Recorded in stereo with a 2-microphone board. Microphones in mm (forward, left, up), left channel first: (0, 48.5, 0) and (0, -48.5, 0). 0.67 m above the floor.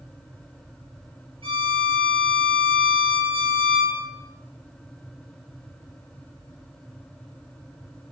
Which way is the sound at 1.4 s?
65° right (ahead or behind).